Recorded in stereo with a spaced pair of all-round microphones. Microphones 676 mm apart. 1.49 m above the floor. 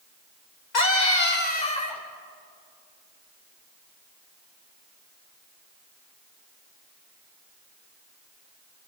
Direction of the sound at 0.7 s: 90° left.